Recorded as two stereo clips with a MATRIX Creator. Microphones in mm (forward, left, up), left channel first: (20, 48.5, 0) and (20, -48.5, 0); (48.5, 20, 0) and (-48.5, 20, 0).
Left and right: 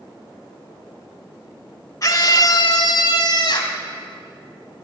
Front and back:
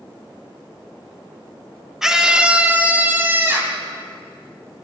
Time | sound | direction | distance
2.0 | a scream | 95° left | 1.2 m